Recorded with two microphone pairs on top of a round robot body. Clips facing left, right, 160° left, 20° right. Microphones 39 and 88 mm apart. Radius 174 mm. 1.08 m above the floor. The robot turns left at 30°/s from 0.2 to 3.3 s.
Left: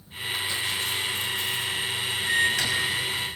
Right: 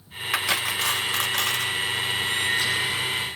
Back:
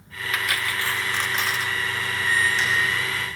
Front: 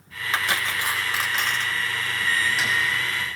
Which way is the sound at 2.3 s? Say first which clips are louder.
Left 4 dB, back 2 dB; 70° left.